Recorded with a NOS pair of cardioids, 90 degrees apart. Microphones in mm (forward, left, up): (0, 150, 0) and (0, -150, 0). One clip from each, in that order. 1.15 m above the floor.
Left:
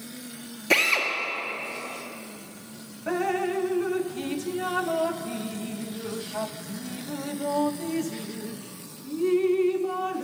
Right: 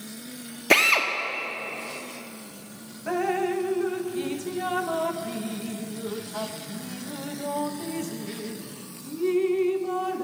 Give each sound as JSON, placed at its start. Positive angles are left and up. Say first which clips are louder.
{"t": 0.7, "sound": "a drill", "louder": "right 3 dB", "azimuth_deg": -25, "distance_m": 1.5}
{"t": 3.1, "sound": "dripping", "louder": "right 1 dB", "azimuth_deg": 5, "distance_m": 0.5}